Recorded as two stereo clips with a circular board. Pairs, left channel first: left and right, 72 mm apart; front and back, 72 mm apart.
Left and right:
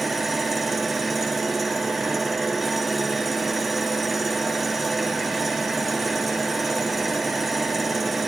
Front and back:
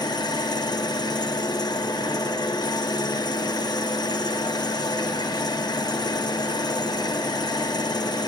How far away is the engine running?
About 0.8 m.